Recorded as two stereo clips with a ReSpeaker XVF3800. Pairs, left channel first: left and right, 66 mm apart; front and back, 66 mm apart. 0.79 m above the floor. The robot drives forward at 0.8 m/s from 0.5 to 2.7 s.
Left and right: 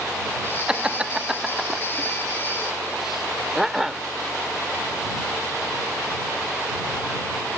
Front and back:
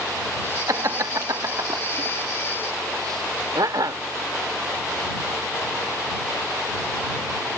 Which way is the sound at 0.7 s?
165° right.